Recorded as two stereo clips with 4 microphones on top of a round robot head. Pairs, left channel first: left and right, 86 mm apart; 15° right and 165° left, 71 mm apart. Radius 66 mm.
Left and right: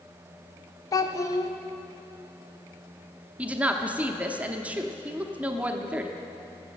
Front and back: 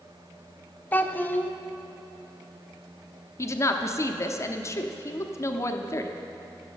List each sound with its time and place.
0.9 s a child speaking: 45° left, 0.8 m
3.4 s a woman speaking: 25° right, 0.8 m